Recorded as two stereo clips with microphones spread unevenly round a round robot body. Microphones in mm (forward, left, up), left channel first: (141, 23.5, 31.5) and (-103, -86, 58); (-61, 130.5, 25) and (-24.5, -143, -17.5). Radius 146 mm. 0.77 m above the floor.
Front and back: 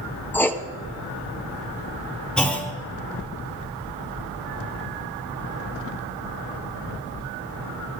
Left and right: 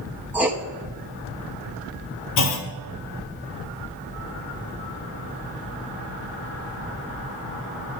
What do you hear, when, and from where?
0.3 s writing: 30° right, 0.8 m
2.4 s a clunk: 110° left, 1.1 m